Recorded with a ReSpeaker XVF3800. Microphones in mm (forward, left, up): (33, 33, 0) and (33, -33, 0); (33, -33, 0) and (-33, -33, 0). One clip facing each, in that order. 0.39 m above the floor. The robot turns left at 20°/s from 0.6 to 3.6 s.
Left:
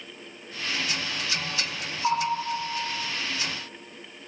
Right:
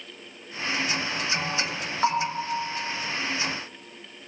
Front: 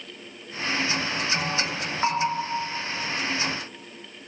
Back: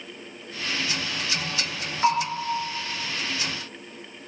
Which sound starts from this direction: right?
A bell, at 2.0 s.